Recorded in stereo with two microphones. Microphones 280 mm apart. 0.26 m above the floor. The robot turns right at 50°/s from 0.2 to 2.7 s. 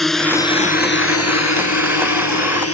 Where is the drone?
Centre (ahead or behind); by 2.7 s 50° left (ahead or behind).